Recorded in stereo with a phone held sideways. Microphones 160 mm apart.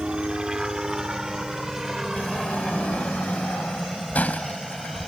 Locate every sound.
0.0 s a helicopter: 5° right (ahead or behind); by 5.1 s centre (ahead or behind)
2.2 s a sliding door: 10° left (ahead or behind)